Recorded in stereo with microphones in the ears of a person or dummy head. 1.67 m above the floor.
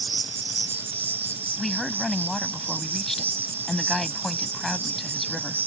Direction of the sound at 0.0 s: 15° right (ahead or behind).